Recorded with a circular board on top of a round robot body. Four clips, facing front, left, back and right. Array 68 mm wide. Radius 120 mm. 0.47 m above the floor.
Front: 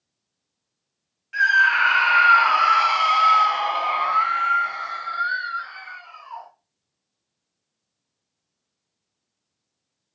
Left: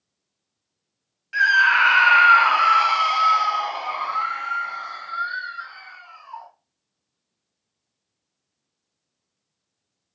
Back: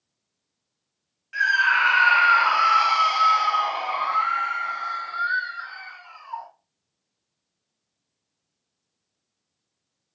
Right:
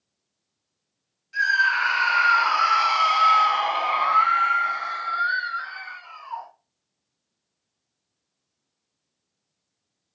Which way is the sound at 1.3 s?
90° left.